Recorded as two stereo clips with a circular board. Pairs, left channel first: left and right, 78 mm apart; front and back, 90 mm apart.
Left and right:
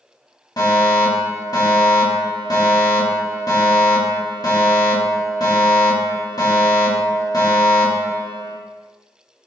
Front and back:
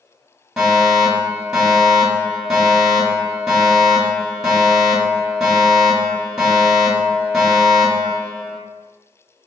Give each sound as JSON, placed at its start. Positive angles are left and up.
{"t": 0.6, "sound": "a fire alarm", "azimuth_deg": 95, "distance_m": 3.0}